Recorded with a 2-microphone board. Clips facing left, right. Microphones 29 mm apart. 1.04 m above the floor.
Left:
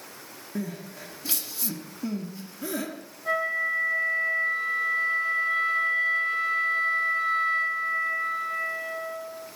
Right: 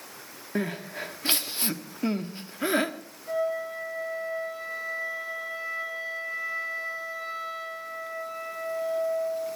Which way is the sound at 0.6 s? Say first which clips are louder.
Right 4 dB; 40° right (ahead or behind).